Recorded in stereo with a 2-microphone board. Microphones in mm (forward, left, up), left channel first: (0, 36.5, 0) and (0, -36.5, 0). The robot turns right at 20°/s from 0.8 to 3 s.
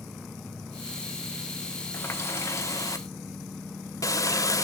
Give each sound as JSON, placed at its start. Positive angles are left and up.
{"t": 1.9, "sound": "a running tap", "side_deg": 35, "distance_m": 1.0}